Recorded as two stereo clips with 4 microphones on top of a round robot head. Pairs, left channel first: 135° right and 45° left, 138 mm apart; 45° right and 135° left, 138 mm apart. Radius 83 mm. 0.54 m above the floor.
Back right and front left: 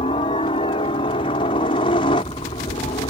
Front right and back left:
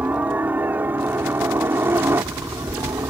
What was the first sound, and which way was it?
A helicopter, 150° right.